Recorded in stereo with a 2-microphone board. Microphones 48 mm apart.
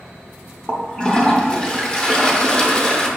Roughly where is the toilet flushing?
Centre.